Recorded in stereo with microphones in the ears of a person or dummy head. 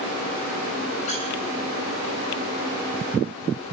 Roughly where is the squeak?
Left.